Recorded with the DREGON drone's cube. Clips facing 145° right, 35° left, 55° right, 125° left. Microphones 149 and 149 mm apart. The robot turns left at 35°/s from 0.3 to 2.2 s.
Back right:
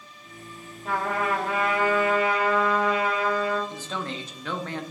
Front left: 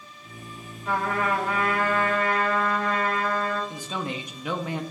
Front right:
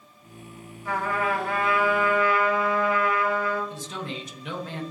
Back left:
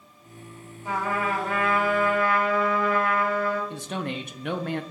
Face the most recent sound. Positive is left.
turn(degrees=110)